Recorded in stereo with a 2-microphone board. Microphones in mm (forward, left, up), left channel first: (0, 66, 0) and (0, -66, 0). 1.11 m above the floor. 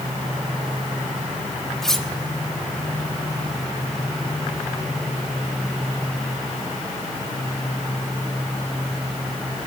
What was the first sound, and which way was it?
Cutlery clinking, 5° left (ahead or behind).